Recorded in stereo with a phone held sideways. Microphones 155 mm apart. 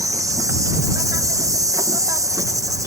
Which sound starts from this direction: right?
An insect, at 0.0 s.